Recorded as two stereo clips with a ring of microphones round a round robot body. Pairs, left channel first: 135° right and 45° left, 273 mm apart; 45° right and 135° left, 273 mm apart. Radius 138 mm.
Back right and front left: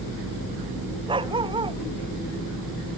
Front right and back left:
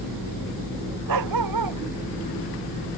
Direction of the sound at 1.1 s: 120° left.